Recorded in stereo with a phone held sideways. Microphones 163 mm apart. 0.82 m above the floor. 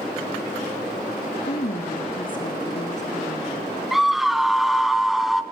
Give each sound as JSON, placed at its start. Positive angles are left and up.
{"t": 1.5, "sound": "a woman speaking", "side_deg": 60, "distance_m": 1.7}
{"t": 3.9, "sound": "a scream", "side_deg": 0, "distance_m": 1.2}